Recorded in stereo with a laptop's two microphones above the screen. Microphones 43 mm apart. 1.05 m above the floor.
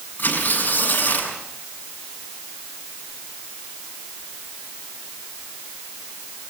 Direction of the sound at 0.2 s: 40° left (ahead or behind).